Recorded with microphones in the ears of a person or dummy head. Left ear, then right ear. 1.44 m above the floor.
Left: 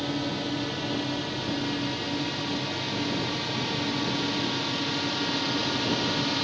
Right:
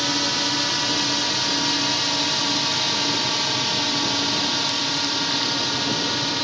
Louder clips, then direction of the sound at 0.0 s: Right 9 dB; 55° right (ahead or behind).